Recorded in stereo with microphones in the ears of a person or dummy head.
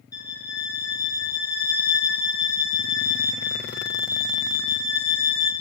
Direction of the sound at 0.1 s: 15° left (ahead or behind).